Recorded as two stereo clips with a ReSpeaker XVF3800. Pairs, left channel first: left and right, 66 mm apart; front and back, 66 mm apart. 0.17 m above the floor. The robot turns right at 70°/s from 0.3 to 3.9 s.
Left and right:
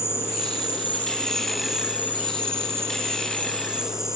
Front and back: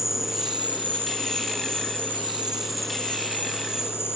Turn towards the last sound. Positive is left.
turn(degrees=-10)